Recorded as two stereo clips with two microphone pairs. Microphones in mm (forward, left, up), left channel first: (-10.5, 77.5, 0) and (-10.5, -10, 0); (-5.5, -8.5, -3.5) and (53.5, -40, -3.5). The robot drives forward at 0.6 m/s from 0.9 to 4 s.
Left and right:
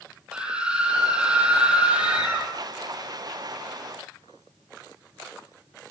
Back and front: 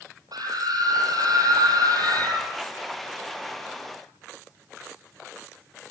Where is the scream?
10° right, 8 m; by 2.5 s 15° right, 7 m.